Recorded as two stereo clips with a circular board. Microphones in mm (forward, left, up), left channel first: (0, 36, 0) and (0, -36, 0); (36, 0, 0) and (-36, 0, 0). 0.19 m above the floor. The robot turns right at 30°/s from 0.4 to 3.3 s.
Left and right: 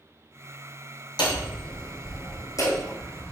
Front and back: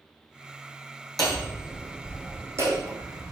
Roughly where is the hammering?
Left.